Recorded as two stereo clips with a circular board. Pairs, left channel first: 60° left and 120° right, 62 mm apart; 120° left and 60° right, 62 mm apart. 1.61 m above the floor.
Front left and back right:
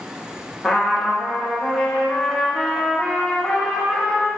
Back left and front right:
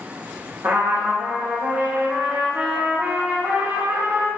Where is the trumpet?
20° right, 0.7 m.